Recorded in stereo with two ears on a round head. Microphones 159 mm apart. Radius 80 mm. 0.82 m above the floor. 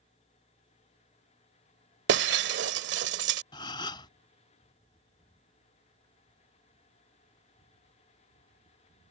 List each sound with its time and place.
2.1 s breaking glass: 70° right (ahead or behind)
3.5 s a gasp: 25° left (ahead or behind)